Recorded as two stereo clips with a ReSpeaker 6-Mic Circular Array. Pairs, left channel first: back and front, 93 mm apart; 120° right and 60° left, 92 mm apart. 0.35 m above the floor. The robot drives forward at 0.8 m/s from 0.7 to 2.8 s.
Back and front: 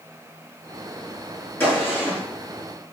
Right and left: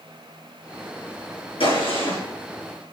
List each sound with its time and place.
1.6 s a gunshot: 115° right, 5.5 m; by 2.2 s 120° right, 6 m